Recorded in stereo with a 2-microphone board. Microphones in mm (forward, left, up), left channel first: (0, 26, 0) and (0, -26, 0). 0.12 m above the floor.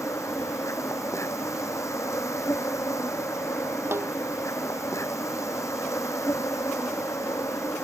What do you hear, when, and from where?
0.0 s an insect: 75° left (ahead or behind)
3.9 s a snare drum: 55° right (ahead or behind)